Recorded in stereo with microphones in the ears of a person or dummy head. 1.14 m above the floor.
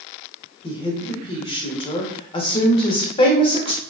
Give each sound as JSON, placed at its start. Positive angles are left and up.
{"t": 0.6, "sound": "a woman speaking", "side_deg": 35, "distance_m": 0.7}